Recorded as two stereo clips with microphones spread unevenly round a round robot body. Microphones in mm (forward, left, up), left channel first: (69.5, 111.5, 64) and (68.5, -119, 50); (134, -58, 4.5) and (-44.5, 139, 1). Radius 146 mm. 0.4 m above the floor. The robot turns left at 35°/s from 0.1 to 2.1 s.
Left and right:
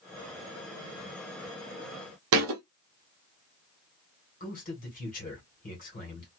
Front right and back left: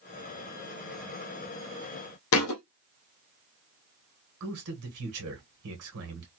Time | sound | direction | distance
2.3 | a thud | 75° right | 0.6 m
4.4 | a man speaking | 140° left | 1.4 m